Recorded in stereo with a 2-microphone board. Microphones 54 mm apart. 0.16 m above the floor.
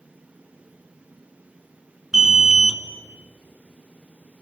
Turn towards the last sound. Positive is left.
turn(degrees=-10)  # may be behind; listen again after turning